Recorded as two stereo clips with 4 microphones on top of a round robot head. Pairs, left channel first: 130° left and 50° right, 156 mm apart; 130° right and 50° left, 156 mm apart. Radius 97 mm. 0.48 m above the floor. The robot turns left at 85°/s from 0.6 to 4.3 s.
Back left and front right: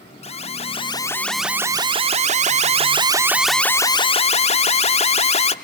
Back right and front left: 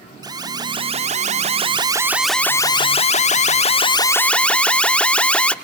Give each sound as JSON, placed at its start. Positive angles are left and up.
{"t": 0.2, "sound": "an alarm", "azimuth_deg": 105, "distance_m": 0.9}